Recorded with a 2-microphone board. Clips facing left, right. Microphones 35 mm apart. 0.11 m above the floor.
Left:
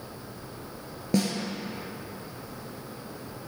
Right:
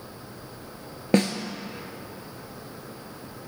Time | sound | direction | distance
1.1 | a snare drum | 45° right (ahead or behind) | 0.6 m